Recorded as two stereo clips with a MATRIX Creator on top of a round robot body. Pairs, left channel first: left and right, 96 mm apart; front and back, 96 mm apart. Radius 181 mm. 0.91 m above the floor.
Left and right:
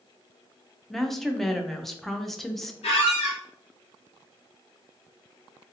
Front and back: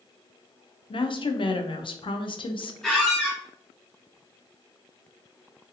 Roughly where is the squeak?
Left.